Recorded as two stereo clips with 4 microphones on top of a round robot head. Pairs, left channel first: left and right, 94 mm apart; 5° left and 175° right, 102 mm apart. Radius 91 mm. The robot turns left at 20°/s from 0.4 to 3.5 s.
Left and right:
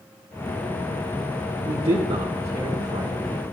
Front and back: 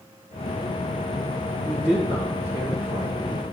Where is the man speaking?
95° right, 1.9 m; by 3.4 s 130° right, 1.9 m.